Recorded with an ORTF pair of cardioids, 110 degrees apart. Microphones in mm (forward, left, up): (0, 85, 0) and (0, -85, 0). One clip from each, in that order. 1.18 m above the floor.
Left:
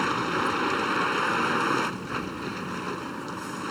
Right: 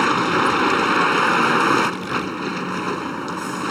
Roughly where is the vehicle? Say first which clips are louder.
Right 8 dB; ahead right.